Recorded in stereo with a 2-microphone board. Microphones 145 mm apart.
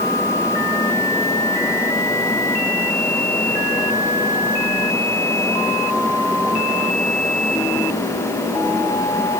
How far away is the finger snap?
No finger snap in this recording.